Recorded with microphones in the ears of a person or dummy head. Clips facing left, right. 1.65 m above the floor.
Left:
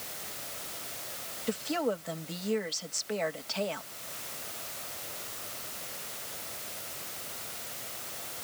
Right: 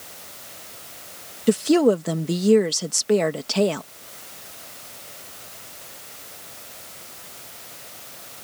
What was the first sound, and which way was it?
A woman speaking, 80° right.